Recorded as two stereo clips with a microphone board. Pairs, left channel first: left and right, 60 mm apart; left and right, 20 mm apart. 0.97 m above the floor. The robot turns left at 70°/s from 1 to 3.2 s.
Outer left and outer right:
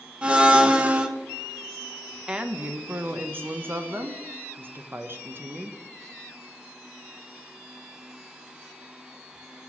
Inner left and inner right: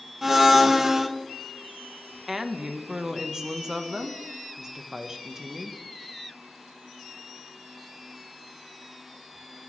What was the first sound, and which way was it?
A blender, 15° right (ahead or behind).